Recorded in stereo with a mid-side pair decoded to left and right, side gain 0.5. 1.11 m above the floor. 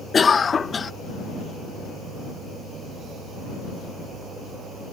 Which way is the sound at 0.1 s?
30° left.